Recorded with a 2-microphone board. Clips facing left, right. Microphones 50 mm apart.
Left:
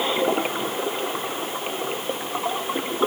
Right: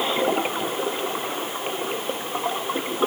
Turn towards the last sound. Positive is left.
No sound to turn to.